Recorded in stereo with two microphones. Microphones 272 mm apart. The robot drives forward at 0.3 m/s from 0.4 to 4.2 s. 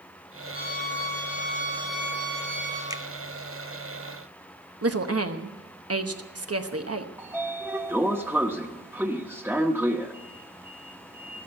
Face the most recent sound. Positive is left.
turn(degrees=-5)  # may be behind; listen again after turning